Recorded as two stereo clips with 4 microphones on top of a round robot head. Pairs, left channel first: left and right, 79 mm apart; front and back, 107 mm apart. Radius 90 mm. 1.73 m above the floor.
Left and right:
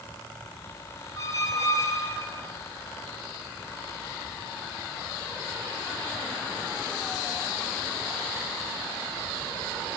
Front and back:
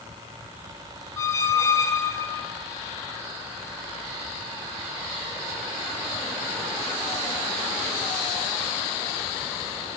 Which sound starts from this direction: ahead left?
A squeak, at 1.2 s.